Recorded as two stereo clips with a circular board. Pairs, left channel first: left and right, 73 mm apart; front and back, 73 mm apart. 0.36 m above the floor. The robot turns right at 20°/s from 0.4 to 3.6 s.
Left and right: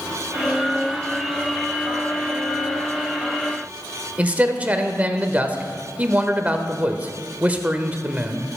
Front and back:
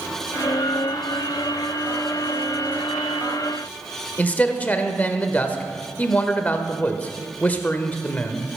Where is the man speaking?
45° right, 0.9 m.